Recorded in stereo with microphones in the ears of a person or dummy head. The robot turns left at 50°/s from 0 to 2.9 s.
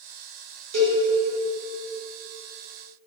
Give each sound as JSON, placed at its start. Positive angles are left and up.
{"t": 0.7, "sound": "a cowbell", "side_deg": -85, "distance_m": 1.1}